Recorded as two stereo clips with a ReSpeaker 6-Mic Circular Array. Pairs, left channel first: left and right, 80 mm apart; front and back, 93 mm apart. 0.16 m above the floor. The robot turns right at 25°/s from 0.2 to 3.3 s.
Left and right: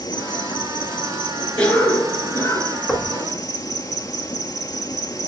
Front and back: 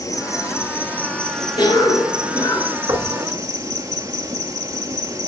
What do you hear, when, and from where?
0.0 s an insect: 55° left, 0.7 m; by 5.3 s 130° left, 0.7 m
1.6 s a cough: 20° left, 2.5 m; by 2.8 s 50° left, 2.5 m
2.9 s knocking: 155° left, 1.2 m; by 3.1 s 160° left, 1.2 m